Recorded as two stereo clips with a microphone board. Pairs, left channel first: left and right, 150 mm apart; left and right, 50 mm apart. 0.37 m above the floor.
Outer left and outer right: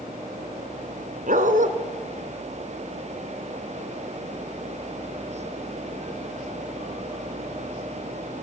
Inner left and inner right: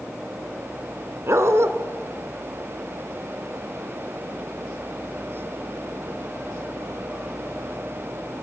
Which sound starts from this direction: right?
A dog barking, at 1.3 s.